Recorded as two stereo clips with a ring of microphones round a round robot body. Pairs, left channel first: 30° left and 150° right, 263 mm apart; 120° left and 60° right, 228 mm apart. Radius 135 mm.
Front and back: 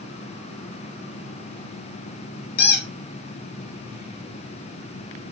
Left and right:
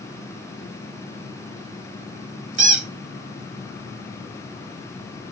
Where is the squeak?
25° right, 1.7 m.